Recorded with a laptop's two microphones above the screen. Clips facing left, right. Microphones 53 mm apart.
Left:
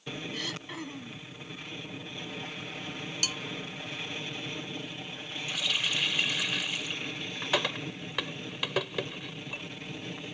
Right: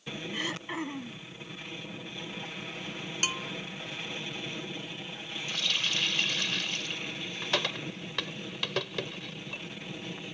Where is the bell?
30° right (ahead or behind).